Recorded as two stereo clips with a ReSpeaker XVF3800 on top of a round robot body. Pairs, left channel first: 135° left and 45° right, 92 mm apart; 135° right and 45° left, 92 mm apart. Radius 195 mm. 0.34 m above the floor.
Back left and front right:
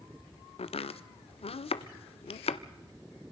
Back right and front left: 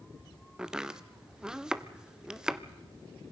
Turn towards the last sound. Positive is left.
turn(degrees=130)